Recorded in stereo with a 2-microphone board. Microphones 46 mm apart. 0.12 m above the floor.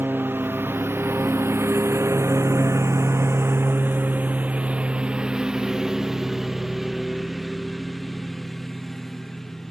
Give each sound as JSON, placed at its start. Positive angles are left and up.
{"t": 0.0, "sound": "a lawn mower", "side_deg": -45}